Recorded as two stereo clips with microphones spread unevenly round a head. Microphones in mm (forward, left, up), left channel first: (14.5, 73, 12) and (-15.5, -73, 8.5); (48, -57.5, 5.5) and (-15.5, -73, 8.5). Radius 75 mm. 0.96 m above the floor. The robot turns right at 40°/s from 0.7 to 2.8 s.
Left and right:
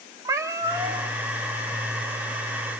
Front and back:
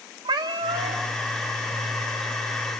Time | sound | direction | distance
0.2 | a cat meowing | 175° right | 1.0 m